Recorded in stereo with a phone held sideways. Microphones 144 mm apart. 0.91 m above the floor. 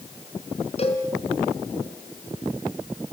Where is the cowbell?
45° left (ahead or behind), 3.5 m.